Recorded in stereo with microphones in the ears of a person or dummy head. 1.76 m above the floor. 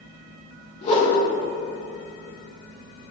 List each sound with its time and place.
0.8 s a whoosh: 40° left (ahead or behind), 0.8 m